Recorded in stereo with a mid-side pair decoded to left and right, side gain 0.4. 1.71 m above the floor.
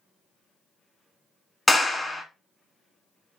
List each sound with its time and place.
1.7 s a clap: 5° left, 1.1 m